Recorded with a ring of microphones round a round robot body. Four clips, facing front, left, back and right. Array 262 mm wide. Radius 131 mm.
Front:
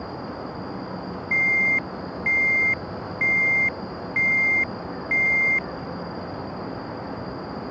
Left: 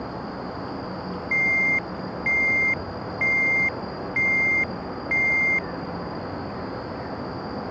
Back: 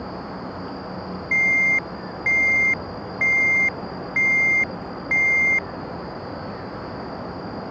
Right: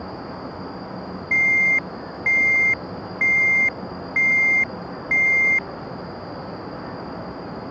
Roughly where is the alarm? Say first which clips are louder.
Right 4 dB, back 2 dB; behind right.